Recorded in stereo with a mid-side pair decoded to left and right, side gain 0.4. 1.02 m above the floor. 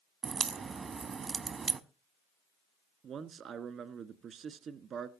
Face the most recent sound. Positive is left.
turn(degrees=-70)